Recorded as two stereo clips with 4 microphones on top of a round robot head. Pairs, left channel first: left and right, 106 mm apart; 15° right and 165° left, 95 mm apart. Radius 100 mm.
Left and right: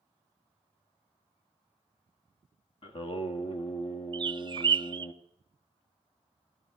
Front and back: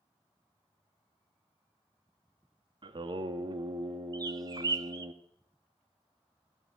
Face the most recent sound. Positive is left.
turn(degrees=-140)